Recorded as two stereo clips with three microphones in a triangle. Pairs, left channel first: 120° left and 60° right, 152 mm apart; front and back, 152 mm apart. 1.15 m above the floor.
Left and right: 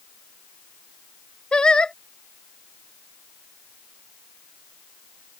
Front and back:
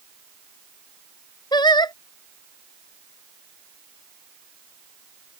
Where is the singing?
40° left.